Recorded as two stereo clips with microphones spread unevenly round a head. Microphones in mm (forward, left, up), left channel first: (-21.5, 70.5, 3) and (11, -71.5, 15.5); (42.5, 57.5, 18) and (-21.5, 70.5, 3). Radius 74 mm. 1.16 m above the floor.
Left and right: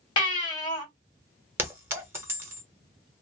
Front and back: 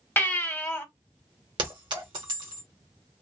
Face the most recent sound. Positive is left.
turn(degrees=-145)